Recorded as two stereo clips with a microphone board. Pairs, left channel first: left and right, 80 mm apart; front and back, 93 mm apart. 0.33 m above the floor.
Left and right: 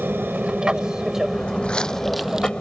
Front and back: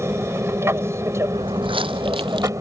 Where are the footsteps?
160° left; by 2.5 s 165° right.